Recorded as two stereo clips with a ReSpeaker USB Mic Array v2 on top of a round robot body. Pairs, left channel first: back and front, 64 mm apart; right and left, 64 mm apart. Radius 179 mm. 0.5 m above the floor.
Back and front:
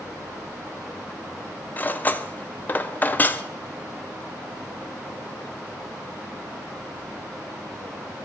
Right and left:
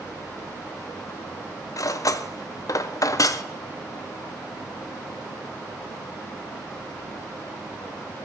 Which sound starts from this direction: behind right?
Cutlery clinking, at 1.8 s.